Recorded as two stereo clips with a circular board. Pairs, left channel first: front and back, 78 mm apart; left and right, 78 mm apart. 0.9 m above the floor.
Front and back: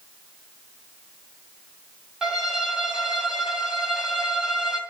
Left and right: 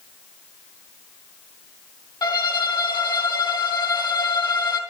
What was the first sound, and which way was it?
A violin, 100° left.